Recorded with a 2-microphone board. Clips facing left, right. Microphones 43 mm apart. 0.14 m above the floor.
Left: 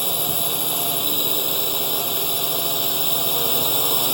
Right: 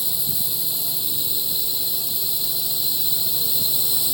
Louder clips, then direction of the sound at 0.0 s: Left 7 dB; 55° left (ahead or behind).